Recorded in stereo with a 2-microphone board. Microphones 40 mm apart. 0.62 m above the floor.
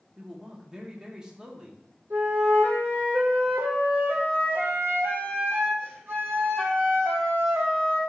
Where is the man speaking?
20° right (ahead or behind), 1.3 m.